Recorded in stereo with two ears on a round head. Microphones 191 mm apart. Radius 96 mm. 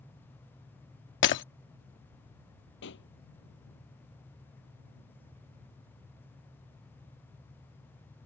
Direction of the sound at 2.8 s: 55° left (ahead or behind).